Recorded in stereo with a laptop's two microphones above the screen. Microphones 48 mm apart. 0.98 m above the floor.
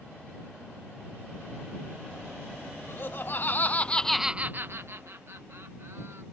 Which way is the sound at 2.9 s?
50° left (ahead or behind).